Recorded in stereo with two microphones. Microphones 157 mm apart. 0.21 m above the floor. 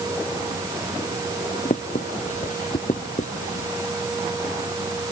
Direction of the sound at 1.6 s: 55° left (ahead or behind).